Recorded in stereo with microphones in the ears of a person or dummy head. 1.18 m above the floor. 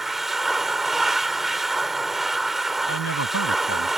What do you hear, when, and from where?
0.0 s a machine running: centre (ahead or behind)
2.9 s a man speaking: 80° left